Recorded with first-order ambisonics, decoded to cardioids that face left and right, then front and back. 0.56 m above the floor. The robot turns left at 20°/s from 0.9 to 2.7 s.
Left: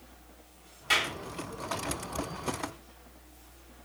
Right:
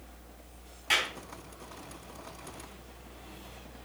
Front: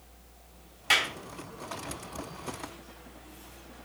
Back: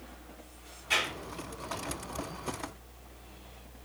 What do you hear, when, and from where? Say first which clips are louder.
0.9 s a clap: left 1 dB, front 4 dB; 5° left, 2 m; by 1.1 s straight ahead, 2 m